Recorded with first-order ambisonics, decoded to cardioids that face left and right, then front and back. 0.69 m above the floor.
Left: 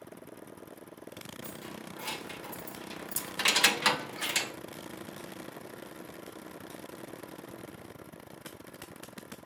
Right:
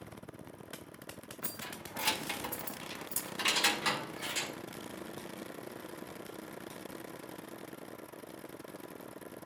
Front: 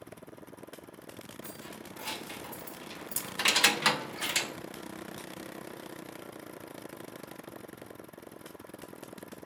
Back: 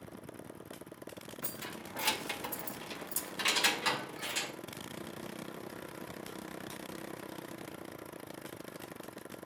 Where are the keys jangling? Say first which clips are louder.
Right 4 dB, back 4 dB; 135° right, 1.2 m; by 4.5 s 45° left, 1.1 m.